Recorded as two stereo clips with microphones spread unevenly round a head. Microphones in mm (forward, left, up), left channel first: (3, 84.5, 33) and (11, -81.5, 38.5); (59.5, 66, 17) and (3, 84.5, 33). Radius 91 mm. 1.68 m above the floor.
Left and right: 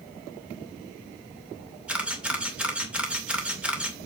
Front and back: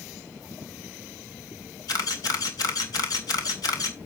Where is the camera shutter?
5° right, 2.5 m.